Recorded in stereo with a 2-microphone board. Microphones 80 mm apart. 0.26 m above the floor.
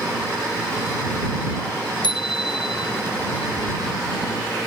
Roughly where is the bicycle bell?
Left.